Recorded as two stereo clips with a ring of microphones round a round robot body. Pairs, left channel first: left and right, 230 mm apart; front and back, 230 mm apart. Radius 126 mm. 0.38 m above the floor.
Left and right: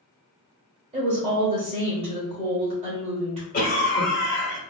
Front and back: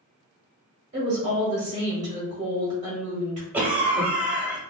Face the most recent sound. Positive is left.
turn(degrees=100)